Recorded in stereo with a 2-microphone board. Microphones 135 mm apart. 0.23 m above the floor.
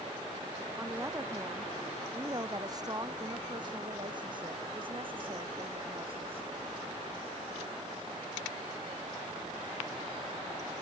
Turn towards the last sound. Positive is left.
turn(degrees=-45)  # may be behind; listen again after turning